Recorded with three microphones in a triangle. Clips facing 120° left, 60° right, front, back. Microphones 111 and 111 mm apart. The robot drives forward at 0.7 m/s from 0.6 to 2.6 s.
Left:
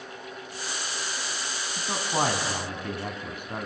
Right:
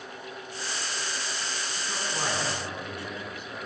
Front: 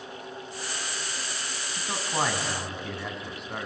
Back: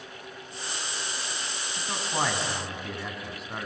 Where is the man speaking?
80° left, 3.5 m; by 3.7 s 90° left, 3.5 m.